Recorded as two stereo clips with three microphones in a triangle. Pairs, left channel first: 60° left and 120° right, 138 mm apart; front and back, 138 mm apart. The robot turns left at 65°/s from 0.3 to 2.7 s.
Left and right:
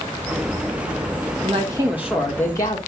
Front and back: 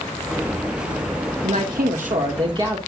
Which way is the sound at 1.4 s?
160° right.